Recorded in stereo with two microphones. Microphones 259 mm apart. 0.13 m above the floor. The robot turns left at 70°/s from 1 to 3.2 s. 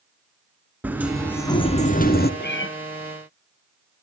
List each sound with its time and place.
0.8 s a sliding door: 170° right, 1.3 m; by 2.3 s 100° left, 1.3 m
2.4 s a cat meowing: 40° left (ahead or behind), 1.1 m; by 2.7 s 55° left (ahead or behind), 1.1 m